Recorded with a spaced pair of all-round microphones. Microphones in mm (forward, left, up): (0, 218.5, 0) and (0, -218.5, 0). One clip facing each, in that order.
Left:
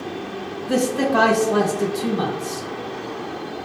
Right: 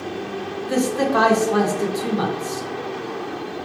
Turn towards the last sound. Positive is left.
turn(degrees=50)  # may be behind; listen again after turning